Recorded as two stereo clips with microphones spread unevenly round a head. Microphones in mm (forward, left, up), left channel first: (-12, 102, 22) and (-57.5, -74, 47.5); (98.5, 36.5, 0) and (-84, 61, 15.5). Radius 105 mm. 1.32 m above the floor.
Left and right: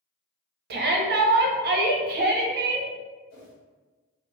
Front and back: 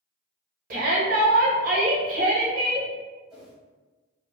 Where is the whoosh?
85° left, 1.5 m.